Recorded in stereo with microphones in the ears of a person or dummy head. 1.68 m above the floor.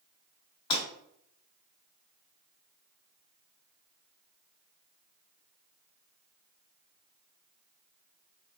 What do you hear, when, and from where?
0.7 s breaking glass: 35° left (ahead or behind), 1.9 m